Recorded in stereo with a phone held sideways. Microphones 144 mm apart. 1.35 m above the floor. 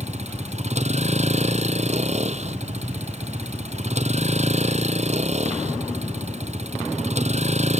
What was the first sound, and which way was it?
A vehicle, 50° right (ahead or behind).